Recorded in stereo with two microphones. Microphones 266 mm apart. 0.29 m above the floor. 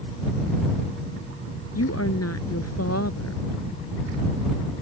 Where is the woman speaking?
65° left (ahead or behind).